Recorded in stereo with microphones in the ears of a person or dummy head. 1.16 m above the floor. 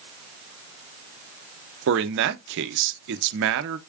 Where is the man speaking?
70° right (ahead or behind), 0.7 m.